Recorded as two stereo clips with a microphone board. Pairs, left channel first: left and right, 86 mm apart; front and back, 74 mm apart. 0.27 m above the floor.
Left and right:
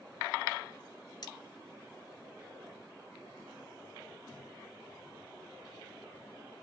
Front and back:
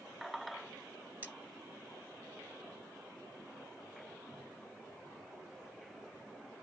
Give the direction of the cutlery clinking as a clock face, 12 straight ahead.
8 o'clock.